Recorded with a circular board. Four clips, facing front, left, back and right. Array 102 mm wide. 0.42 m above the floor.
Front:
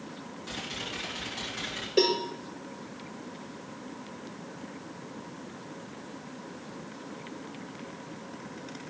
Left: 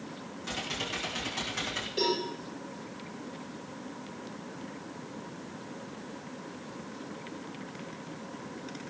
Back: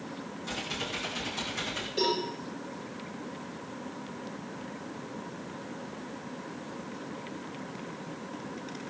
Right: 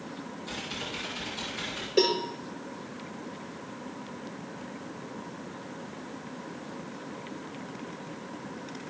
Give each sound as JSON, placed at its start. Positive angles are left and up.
{"t": 0.4, "sound": "typing on a keyboard", "azimuth_deg": 85, "distance_m": 8.0}
{"t": 2.0, "sound": "a cowbell", "azimuth_deg": -35, "distance_m": 7.0}